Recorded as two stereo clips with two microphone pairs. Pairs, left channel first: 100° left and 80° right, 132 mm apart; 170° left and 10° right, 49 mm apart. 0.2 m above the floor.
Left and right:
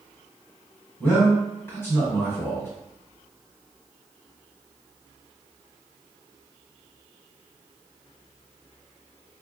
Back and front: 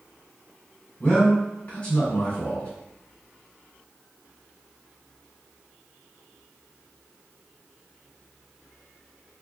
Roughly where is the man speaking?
Behind left.